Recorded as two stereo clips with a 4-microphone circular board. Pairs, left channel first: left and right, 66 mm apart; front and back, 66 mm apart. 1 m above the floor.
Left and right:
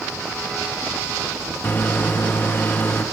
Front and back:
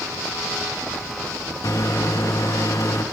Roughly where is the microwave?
Ahead left.